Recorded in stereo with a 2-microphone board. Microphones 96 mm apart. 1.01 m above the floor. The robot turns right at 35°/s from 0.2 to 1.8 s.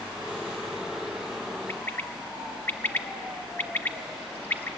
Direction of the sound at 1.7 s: 25° left (ahead or behind).